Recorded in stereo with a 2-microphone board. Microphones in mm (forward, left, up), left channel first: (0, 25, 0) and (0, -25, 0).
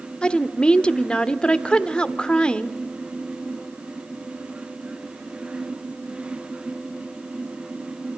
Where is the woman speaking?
20° left (ahead or behind), 1.0 m.